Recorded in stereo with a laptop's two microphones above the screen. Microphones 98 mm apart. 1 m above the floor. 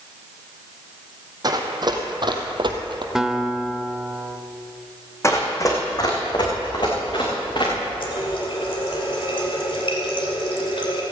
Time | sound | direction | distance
1.4 | running footsteps | 45° right (ahead or behind) | 2.5 m
3.1 | a guitar | 5° right (ahead or behind) | 0.8 m
5.2 | running footsteps | 30° left (ahead or behind) | 2.5 m
8.0 | a running tap | 65° left (ahead or behind) | 2.5 m